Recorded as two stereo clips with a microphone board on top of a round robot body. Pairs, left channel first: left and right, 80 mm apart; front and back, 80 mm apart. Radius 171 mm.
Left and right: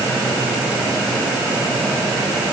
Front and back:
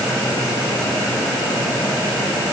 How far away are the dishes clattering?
I don't hear dishes clattering.